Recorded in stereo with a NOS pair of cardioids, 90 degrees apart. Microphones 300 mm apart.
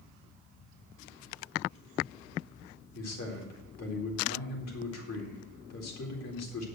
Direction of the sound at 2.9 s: 60° left.